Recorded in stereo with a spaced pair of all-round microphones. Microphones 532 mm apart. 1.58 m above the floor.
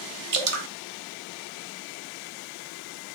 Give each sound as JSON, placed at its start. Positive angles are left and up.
{"t": 0.3, "sound": "dripping", "side_deg": -75, "distance_m": 0.7}